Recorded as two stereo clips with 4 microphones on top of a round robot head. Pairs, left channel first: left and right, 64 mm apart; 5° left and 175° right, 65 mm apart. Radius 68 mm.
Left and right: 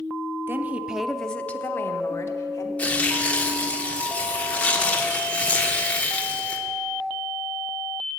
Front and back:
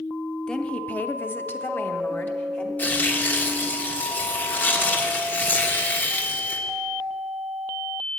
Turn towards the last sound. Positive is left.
turn(degrees=40)